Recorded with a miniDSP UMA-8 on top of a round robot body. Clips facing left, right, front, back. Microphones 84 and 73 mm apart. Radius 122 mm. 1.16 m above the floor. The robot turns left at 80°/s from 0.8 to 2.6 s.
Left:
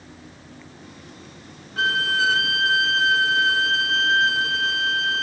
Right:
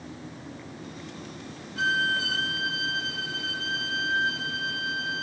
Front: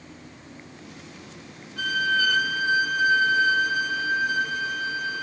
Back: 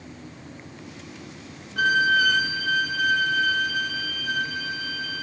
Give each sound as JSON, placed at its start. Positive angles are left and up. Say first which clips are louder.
{"t": 1.8, "sound": "a violin", "louder": "left 4 dB, back 4 dB", "azimuth_deg": 135, "distance_m": 0.9}